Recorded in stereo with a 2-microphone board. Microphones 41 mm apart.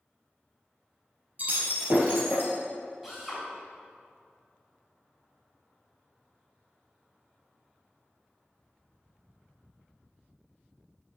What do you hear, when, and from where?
1.4 s breaking glass: 40° right (ahead or behind), 3 m
3.0 s a drill: 5° right (ahead or behind), 3.5 m